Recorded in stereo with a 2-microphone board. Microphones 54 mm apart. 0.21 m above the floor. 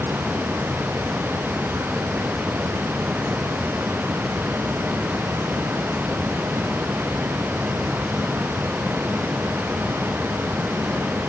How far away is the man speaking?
I don't hear a man speaking.